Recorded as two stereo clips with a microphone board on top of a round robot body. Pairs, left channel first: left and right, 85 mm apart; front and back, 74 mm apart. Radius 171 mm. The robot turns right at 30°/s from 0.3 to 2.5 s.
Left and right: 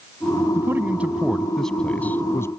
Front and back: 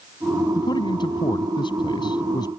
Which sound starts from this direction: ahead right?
A man speaking, at 0.6 s.